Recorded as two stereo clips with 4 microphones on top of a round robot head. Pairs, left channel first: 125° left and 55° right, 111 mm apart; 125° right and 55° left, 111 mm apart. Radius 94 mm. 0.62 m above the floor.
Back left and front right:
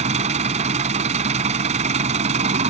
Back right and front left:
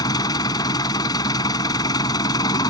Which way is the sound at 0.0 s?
70° right.